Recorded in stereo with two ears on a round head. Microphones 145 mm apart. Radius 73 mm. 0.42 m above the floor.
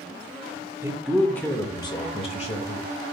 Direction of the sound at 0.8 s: 15° right (ahead or behind).